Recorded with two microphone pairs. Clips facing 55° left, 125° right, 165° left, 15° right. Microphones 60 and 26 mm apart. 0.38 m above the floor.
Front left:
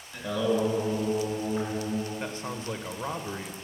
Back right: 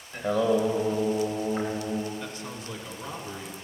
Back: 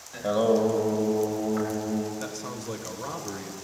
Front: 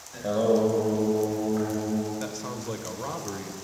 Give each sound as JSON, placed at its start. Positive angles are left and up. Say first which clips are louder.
{"t": 0.1, "sound": "singing", "louder": "back right 3 dB, even", "azimuth_deg": -150, "distance_m": 1.3}
{"t": 2.2, "sound": "a man speaking", "louder": "front left 3 dB, front 1 dB", "azimuth_deg": 55, "distance_m": 0.9}